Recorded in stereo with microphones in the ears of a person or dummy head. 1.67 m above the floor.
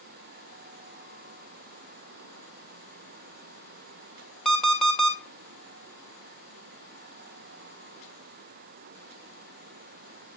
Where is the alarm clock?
Centre (ahead or behind), 2.5 m.